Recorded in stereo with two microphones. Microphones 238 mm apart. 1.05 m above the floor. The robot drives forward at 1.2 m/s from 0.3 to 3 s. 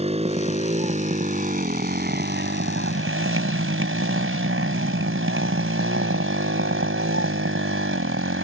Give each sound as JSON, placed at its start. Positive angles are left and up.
{"t": 0.0, "sound": "a motorcycle", "side_deg": -25}